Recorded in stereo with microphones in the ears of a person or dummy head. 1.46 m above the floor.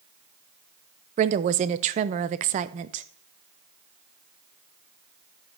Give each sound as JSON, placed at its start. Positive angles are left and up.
{"t": 1.2, "sound": "a woman speaking", "side_deg": -40, "distance_m": 0.5}